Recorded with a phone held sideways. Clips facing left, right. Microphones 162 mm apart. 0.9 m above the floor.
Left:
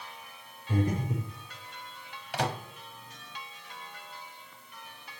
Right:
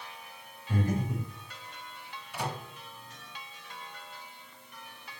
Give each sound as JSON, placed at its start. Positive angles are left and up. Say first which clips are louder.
{"t": 0.7, "sound": "breathing", "louder": "left 1 dB", "side_deg": 20, "distance_m": 4.0}
{"t": 2.3, "sound": "a microwave", "louder": "left 5 dB", "side_deg": 80, "distance_m": 1.1}